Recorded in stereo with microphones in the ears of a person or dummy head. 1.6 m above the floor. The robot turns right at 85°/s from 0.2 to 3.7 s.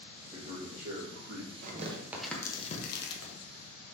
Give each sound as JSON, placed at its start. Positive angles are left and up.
{"t": 0.3, "sound": "a man speaking", "azimuth_deg": -145, "distance_m": 3.5}
{"t": 1.6, "sound": "tearing paper", "side_deg": -50, "distance_m": 1.2}